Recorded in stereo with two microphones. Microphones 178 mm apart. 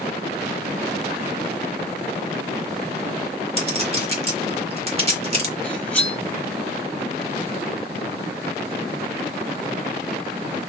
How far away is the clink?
About 1.5 m.